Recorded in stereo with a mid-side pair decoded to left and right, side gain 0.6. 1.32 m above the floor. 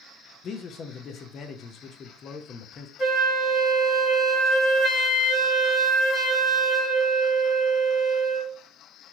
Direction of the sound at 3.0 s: 30° left.